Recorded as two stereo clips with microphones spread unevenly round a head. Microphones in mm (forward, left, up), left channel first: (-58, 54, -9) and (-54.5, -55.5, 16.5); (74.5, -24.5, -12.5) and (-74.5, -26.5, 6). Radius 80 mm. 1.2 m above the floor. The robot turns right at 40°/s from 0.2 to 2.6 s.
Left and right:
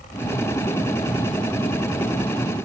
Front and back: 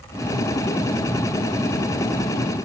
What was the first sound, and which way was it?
Only background noise.